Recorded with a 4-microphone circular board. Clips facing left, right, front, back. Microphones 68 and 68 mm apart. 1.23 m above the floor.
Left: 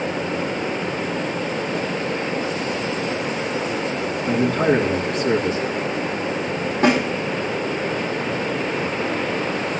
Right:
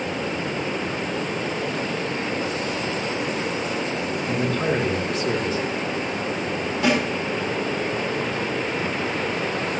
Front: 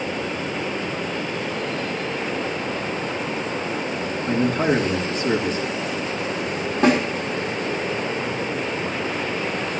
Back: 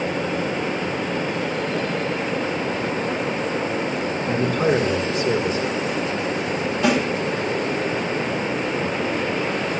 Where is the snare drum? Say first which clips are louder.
Left 4 dB, front 2 dB; 40° left, 3.5 m.